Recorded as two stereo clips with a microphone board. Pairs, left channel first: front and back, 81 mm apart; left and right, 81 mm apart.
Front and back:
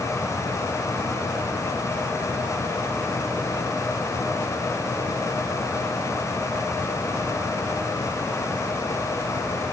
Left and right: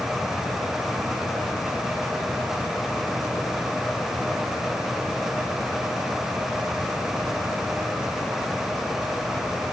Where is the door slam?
I don't hear a door slam.